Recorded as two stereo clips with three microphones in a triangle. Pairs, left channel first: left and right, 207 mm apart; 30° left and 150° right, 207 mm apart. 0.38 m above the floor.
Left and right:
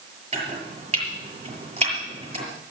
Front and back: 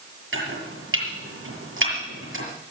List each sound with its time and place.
0.3 s chopping: 150° right, 6.5 m